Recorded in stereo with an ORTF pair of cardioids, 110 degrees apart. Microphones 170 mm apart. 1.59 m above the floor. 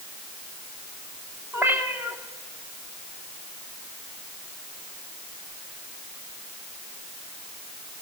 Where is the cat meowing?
15° right, 2.5 m.